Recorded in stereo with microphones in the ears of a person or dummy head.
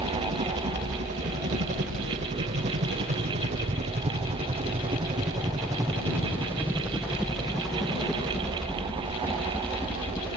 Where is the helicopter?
40° right (ahead or behind); by 10.4 s 10° left (ahead or behind).